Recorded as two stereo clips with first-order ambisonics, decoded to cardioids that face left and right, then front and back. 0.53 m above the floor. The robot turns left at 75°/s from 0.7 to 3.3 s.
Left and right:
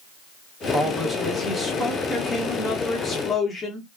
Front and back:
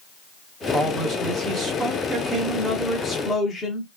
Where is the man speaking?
130° right, 1.0 m; by 3.9 s 35° left, 1.0 m.